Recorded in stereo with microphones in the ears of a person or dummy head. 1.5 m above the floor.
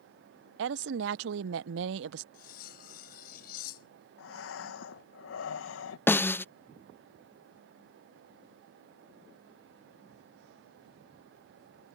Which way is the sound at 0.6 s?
65° right (ahead or behind).